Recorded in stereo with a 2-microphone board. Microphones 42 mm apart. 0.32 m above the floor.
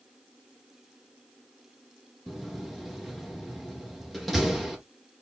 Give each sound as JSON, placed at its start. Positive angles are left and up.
{"t": 2.3, "sound": "a door slam", "side_deg": 5, "distance_m": 3.5}